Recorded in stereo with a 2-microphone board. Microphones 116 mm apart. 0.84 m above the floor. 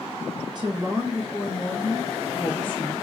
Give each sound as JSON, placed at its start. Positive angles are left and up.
{"t": 0.6, "sound": "a woman speaking", "side_deg": -40, "distance_m": 0.8}